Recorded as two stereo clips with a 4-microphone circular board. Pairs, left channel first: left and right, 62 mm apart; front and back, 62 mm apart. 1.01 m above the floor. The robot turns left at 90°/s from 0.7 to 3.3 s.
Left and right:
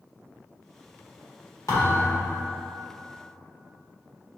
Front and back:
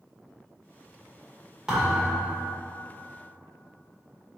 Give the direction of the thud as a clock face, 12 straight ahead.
9 o'clock.